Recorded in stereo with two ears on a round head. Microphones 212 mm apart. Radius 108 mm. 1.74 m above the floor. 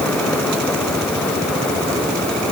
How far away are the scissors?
I don't hear scissors.